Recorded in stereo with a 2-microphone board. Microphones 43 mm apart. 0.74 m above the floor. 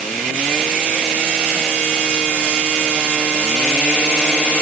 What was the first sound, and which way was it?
Only background noise.